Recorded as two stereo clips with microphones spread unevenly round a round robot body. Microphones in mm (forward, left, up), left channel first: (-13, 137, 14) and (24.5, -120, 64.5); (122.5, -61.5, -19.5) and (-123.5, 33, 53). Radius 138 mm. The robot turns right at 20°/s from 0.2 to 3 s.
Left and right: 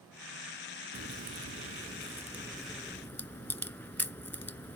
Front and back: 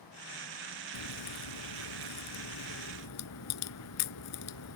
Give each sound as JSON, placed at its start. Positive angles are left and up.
{"t": 0.9, "sound": "a crack", "azimuth_deg": -25}